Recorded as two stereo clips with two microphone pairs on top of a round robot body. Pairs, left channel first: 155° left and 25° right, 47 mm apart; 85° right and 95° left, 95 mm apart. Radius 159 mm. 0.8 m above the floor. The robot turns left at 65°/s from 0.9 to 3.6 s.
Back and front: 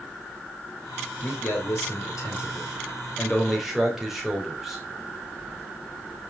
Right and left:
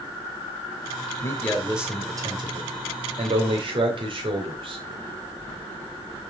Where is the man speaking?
145° right, 3.5 m; by 4.8 s 60° left, 3.5 m.